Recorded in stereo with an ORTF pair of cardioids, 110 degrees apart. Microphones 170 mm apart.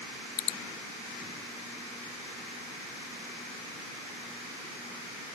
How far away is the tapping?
I don't hear tapping.